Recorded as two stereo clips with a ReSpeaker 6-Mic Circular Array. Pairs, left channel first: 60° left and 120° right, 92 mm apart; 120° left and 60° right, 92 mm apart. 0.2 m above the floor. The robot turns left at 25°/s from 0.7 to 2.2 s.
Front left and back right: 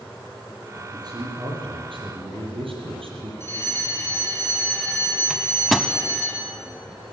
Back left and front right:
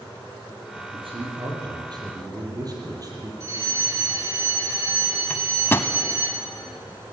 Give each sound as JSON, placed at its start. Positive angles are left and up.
{"t": 0.8, "sound": "a man speaking", "azimuth_deg": -70, "distance_m": 6.5}
{"t": 3.4, "sound": "a fire alarm", "azimuth_deg": -5, "distance_m": 6.0}
{"t": 5.3, "sound": "a microwave", "azimuth_deg": 155, "distance_m": 0.8}